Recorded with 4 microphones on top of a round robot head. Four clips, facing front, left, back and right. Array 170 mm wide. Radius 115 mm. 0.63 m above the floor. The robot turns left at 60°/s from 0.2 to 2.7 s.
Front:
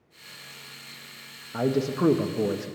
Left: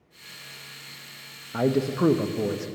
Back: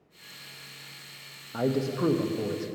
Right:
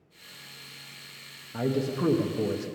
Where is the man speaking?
80° left, 0.6 m; by 2.7 s 10° left, 0.6 m.